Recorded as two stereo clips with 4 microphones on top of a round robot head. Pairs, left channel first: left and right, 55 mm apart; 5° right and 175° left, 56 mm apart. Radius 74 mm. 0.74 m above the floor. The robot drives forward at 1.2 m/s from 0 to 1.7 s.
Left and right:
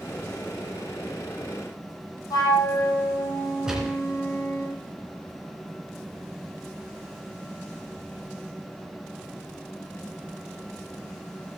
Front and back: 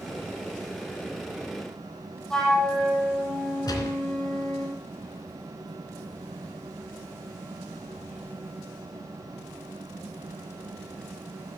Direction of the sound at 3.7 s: 5° right.